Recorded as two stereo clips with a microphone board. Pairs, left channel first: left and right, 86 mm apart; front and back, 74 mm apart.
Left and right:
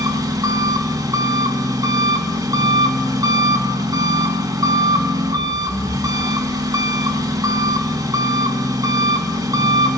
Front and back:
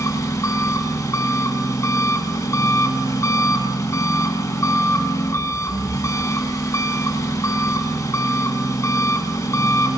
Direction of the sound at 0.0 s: 50° right.